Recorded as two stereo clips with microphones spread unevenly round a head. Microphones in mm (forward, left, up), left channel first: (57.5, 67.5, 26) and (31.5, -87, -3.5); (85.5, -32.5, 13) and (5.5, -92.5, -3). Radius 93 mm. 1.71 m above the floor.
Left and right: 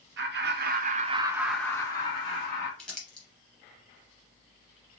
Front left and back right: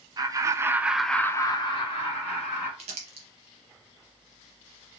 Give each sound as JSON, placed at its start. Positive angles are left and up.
{"t": 0.2, "sound": "laughter", "azimuth_deg": -90, "distance_m": 0.9}
{"t": 2.8, "sound": "crumpling", "azimuth_deg": 165, "distance_m": 0.6}